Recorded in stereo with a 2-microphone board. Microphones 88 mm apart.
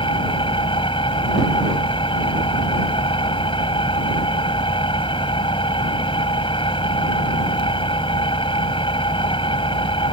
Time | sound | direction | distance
0.0 | an engine running | 80° left | ?